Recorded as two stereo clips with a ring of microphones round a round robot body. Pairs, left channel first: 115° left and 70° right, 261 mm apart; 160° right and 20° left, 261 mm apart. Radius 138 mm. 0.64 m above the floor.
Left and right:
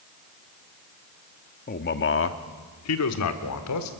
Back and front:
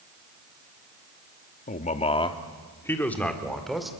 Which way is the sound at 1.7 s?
155° left.